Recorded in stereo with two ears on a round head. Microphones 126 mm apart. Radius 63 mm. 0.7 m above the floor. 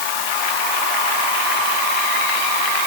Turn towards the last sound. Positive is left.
No sound to turn to.